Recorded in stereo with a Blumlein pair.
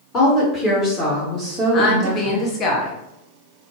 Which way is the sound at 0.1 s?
30° left.